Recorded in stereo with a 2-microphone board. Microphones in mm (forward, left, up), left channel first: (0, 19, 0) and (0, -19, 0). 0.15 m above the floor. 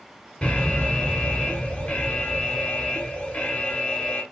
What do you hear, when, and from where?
0.4 s an alarm: 25° left (ahead or behind), 1.2 m